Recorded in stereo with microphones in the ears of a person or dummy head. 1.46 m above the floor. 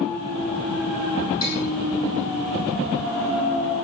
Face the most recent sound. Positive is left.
turn(degrees=30)  # may be behind; listen again after turning